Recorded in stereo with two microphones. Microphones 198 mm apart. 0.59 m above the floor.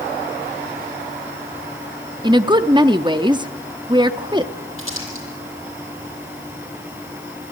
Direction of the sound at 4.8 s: 85° right.